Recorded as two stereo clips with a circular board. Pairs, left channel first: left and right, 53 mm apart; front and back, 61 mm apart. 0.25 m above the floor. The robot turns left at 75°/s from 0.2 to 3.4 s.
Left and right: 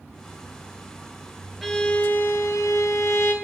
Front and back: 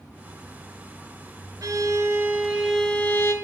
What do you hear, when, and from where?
1.6 s a violin: straight behind, 0.8 m; by 3.3 s 50° left, 0.8 m